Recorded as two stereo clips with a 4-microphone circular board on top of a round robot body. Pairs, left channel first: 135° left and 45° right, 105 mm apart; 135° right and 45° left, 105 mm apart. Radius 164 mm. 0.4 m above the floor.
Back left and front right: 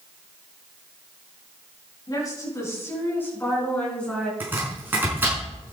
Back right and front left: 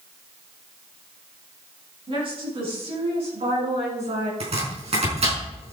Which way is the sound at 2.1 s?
80° left.